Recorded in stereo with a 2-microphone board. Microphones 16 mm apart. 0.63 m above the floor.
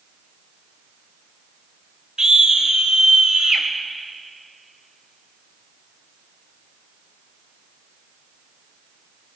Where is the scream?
50° right (ahead or behind), 2.0 m; by 3.7 s 65° right (ahead or behind), 2.5 m.